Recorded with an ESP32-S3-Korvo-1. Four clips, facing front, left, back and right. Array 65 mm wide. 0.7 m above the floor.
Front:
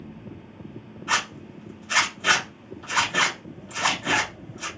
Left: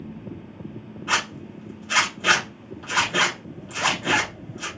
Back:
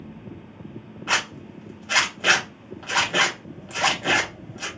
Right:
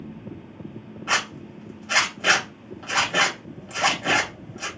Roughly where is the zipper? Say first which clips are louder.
Even, even; behind.